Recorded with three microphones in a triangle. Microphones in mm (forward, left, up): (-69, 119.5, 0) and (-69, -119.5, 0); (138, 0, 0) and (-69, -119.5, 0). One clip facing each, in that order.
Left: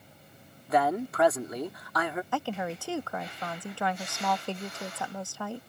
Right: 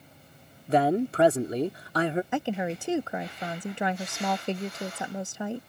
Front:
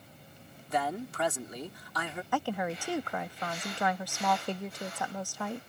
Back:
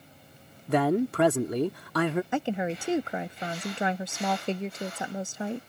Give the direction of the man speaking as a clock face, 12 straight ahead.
5 o'clock.